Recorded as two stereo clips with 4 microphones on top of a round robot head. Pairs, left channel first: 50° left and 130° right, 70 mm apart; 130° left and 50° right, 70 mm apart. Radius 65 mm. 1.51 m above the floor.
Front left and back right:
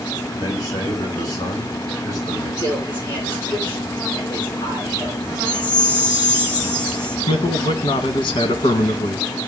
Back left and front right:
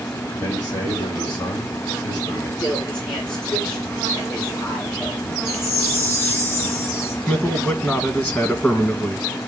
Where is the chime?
80° left, 4.5 m.